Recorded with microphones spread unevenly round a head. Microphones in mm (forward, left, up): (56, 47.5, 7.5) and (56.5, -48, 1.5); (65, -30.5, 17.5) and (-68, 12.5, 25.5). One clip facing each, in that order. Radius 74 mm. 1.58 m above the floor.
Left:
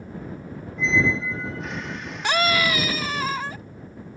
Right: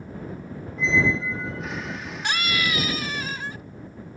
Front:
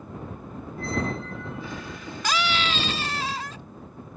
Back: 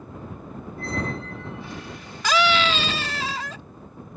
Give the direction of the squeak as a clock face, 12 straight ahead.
12 o'clock.